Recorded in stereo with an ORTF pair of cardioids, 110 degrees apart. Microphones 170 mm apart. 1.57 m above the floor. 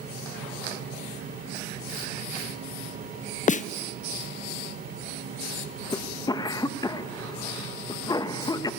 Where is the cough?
25° left, 1.5 m.